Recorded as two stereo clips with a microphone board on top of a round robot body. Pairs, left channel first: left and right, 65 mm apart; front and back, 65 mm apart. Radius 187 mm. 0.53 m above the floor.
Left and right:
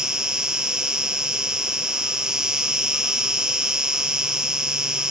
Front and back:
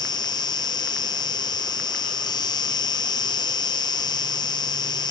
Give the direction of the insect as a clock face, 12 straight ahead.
12 o'clock.